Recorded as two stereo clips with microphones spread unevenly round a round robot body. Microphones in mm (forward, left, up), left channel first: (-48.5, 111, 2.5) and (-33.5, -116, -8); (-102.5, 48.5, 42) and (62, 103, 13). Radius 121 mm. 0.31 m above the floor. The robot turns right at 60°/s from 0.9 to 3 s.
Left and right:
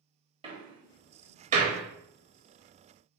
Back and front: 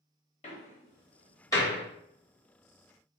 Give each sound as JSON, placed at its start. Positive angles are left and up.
{"t": 0.4, "sound": "a door slam", "azimuth_deg": -125, "distance_m": 0.9}